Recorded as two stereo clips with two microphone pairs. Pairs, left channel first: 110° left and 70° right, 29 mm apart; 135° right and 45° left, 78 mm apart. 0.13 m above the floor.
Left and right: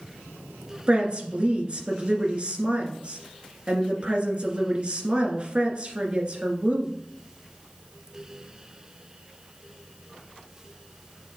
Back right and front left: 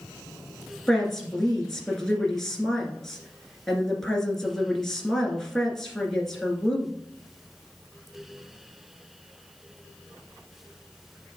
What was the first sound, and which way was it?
A woman speaking, 55° right.